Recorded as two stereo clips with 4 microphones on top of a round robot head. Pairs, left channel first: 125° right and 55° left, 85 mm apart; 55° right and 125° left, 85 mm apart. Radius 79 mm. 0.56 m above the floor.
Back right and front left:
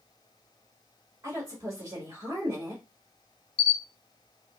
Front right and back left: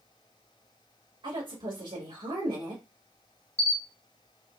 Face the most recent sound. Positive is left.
turn(degrees=-130)